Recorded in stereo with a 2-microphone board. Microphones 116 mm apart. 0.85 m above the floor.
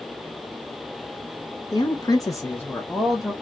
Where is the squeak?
I don't hear a squeak.